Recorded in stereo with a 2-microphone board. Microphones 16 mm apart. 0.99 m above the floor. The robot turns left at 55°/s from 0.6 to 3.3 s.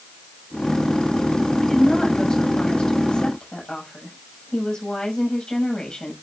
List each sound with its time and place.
1.6 s a woman speaking: 165° left, 7 m; by 6.1 s 70° left, 7 m